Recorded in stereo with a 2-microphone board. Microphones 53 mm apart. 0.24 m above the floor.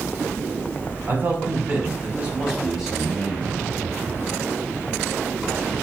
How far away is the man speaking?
About 1.4 m.